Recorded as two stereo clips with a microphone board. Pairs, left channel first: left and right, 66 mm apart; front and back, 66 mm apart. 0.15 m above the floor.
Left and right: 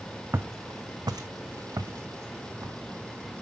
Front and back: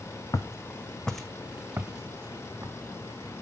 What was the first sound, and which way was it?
Footsteps, 30° right.